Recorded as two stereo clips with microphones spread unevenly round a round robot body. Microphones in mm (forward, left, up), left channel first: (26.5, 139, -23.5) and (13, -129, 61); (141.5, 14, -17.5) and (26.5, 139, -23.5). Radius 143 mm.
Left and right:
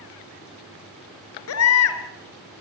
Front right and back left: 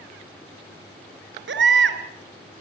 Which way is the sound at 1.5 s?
125° left.